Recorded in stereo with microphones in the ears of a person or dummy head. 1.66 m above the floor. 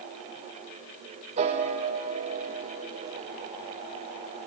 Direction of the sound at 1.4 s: 30° right (ahead or behind).